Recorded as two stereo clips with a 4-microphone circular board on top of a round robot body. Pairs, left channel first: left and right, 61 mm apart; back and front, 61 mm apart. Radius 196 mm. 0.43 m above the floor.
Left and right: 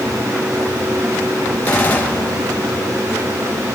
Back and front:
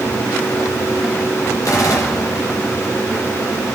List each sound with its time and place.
1.6 s a gunshot: 155° left, 2.5 m